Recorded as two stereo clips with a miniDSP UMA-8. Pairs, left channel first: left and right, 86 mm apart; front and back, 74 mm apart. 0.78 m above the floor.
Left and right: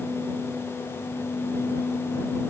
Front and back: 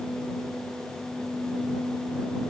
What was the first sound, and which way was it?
Only background noise.